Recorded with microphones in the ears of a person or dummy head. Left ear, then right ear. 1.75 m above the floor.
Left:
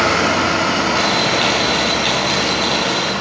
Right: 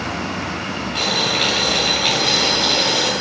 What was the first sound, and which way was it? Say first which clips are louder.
Boiling: right 3 dB; 5° right (ahead or behind).